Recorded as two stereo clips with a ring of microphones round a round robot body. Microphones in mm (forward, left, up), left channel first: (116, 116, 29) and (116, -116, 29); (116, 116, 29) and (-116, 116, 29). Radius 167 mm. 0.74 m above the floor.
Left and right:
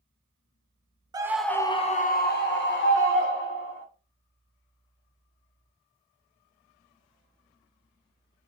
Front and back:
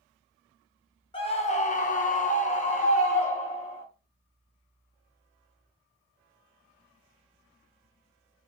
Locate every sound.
1.1 s a scream: 35° right, 0.5 m; by 3.8 s 65° left, 1.5 m